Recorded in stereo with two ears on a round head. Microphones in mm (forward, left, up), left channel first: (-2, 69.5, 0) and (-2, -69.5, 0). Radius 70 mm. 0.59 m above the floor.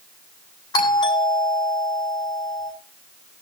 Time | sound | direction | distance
0.7 | a doorbell | 25° left (ahead or behind) | 8 m